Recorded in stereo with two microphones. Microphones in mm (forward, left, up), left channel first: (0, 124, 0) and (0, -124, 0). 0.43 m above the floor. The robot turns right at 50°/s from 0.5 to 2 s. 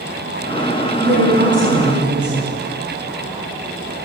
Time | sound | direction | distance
1.0 | a woman speaking | 155° right | 4.5 m